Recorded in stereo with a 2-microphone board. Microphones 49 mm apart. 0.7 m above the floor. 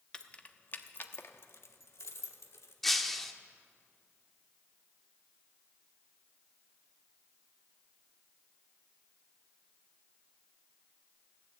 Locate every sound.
0.1 s keys jangling: 20° left (ahead or behind), 0.7 m; by 2.7 s 70° left (ahead or behind), 1.4 m
2.8 s breaking glass: 5° left (ahead or behind), 0.7 m